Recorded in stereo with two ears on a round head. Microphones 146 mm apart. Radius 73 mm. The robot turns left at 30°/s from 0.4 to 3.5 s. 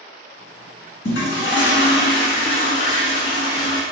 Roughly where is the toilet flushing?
Left.